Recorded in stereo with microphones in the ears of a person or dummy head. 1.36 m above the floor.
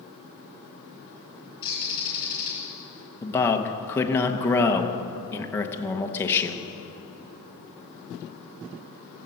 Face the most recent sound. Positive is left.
turn(degrees=15)  # may be behind; listen again after turning